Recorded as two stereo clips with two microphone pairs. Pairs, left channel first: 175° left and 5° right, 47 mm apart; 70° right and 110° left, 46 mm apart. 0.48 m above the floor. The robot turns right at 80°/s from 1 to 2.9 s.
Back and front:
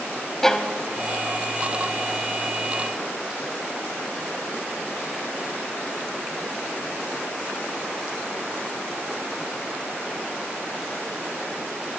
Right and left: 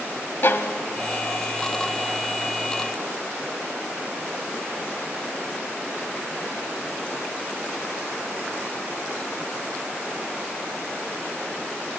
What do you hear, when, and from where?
0.4 s a violin: 105° right, 1.1 m